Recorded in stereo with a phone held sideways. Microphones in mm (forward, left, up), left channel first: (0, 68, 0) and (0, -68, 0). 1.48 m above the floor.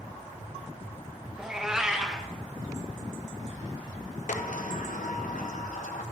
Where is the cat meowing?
5° right (ahead or behind), 0.6 m.